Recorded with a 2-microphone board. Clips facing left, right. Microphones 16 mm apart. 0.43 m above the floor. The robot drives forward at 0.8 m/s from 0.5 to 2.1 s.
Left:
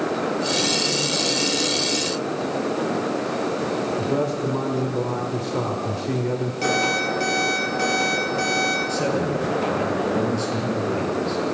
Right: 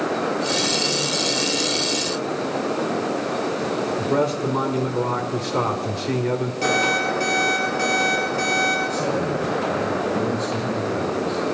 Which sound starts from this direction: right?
A man speaking, at 4.0 s.